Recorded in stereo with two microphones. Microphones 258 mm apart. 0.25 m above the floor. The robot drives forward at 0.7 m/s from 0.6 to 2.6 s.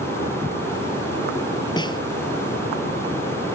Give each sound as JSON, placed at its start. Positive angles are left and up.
{"t": 1.8, "sound": "a snare drum", "side_deg": 15}